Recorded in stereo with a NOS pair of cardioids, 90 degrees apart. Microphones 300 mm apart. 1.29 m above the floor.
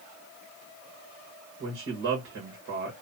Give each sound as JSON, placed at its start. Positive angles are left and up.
{"t": 1.6, "sound": "a man speaking", "azimuth_deg": -45, "distance_m": 1.5}